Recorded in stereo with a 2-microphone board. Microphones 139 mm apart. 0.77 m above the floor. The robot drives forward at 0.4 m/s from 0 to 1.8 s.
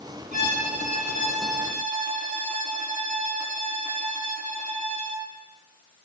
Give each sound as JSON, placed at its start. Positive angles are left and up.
{"t": 0.3, "sound": "a violin", "side_deg": -70, "distance_m": 6.0}